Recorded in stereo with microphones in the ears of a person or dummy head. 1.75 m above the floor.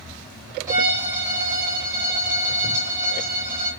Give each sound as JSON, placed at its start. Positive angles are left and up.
{"t": 0.7, "sound": "a violin", "side_deg": -20, "distance_m": 3.0}